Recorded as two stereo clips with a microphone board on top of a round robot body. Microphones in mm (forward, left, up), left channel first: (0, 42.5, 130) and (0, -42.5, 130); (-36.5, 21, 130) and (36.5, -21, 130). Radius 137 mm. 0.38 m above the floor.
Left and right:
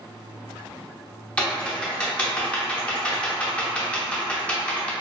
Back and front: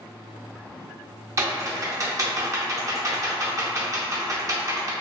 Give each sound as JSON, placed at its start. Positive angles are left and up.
{"t": 1.4, "sound": "typing on a keyboard", "azimuth_deg": 15, "distance_m": 0.7}